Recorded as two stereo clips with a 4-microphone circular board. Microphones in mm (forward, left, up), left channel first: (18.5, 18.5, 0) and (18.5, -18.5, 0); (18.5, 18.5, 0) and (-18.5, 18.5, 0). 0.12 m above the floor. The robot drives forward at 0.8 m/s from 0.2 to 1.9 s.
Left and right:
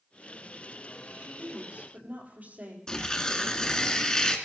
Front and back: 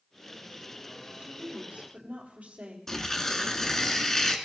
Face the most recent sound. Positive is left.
turn(degrees=60)